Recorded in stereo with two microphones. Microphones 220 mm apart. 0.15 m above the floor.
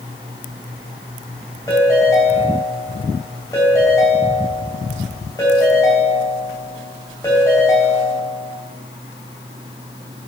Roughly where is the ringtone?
Centre.